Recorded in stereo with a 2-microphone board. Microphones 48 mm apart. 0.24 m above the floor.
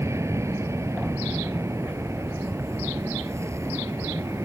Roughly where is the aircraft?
Right.